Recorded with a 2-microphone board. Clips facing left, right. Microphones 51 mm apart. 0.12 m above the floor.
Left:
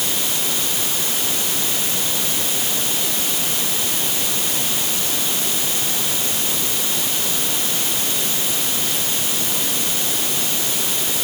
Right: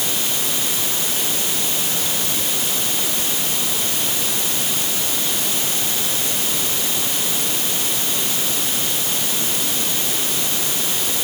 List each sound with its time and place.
Only background noise.